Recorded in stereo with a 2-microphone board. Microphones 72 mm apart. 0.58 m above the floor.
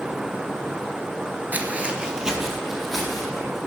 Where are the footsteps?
25° right (ahead or behind), 0.5 m; by 3.6 s centre (ahead or behind), 2 m.